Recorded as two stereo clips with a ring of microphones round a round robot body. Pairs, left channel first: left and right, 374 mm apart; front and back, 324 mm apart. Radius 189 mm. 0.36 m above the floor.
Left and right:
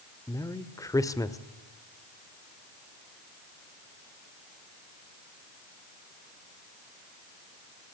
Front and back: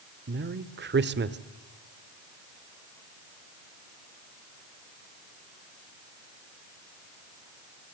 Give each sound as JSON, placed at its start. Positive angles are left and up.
{"t": 0.3, "sound": "a man speaking", "azimuth_deg": 165, "distance_m": 1.3}